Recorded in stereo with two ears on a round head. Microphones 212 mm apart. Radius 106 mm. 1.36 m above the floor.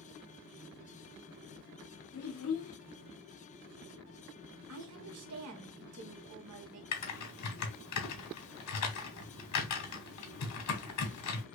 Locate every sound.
2.1 s a child speaking: 65° left (ahead or behind), 1.1 m
4.7 s a woman speaking: 65° right (ahead or behind), 1.0 m
6.9 s typing on a keyboard: 75° left (ahead or behind), 1.2 m